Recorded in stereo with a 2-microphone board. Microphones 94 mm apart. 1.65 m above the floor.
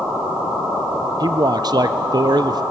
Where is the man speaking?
45° right (ahead or behind), 0.8 m.